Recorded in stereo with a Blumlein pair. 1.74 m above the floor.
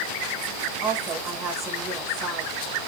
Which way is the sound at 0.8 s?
30° right.